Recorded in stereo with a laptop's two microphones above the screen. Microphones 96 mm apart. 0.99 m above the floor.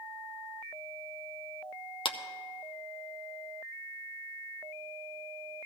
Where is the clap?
65° left (ahead or behind), 0.7 m.